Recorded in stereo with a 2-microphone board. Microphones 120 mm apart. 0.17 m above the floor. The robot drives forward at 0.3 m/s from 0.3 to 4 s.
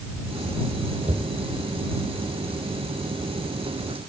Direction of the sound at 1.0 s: 75° right (ahead or behind).